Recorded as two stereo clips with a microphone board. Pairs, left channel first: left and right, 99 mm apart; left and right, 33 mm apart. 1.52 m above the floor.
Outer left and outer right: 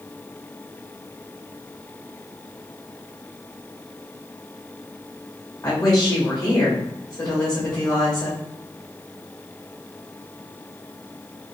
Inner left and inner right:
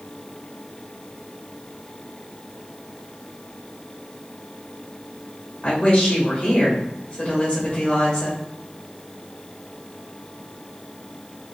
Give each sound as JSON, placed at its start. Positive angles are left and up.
{"t": 5.6, "sound": "a woman speaking", "side_deg": 45, "distance_m": 1.8}